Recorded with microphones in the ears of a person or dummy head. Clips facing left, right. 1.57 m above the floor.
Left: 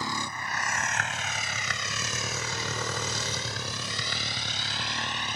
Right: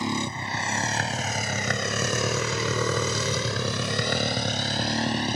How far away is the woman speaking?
No woman speaking in this recording.